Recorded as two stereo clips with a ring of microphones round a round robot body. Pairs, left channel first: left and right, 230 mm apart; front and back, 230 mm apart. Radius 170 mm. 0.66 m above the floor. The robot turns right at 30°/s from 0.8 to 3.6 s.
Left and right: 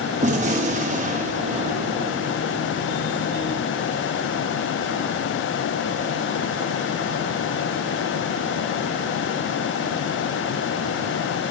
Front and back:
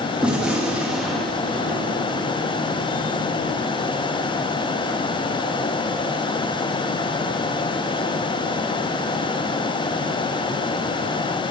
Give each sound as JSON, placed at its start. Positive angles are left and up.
{"t": 0.2, "sound": "a gunshot", "azimuth_deg": -100, "distance_m": 0.9}